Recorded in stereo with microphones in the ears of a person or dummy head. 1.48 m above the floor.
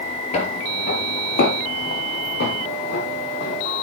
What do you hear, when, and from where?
0.3 s footsteps: 45° left (ahead or behind), 2.0 m; by 3.7 s 60° left (ahead or behind), 5.5 m